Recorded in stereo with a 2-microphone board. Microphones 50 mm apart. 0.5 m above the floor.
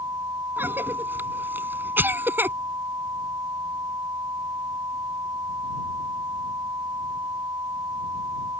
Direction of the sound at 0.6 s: 45° right (ahead or behind).